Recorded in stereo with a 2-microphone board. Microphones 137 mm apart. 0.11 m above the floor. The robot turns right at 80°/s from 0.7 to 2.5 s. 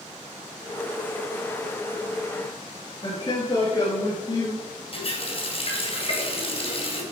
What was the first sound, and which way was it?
A man speaking, 35° left (ahead or behind).